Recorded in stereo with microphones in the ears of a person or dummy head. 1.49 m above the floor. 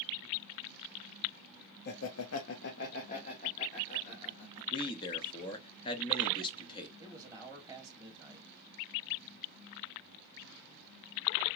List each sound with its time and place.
1.9 s laughter: 55° left (ahead or behind), 0.5 m; by 4.6 s 25° left (ahead or behind), 1.8 m
4.7 s a man speaking: 25° left (ahead or behind), 0.7 m
7.0 s a man speaking: 20° right (ahead or behind), 0.9 m